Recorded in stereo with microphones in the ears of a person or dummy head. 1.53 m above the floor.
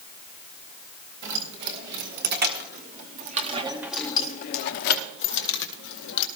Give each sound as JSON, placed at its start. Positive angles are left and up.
{"t": 1.2, "sound": "keys jangling", "side_deg": -60, "distance_m": 2.5}